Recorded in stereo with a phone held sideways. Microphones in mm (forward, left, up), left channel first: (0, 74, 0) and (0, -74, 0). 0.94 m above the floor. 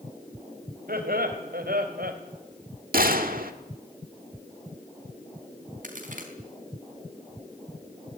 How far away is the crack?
About 4 m.